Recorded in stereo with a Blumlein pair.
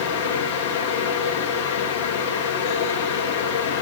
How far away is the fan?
About 1.3 m.